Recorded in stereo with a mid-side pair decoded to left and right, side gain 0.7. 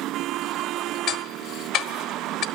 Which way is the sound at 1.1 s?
55° left.